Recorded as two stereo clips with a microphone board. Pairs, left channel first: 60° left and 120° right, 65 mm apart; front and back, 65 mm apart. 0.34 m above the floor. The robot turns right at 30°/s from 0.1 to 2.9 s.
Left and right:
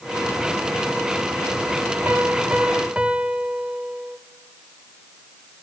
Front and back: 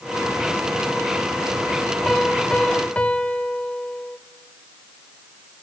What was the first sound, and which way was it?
A piano, 85° right.